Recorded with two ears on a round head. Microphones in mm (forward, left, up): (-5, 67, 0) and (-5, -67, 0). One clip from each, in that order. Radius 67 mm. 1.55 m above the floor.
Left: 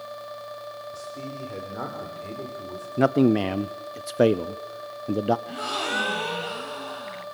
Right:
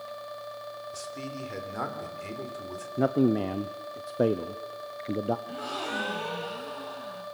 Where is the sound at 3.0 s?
50° left (ahead or behind), 0.6 m.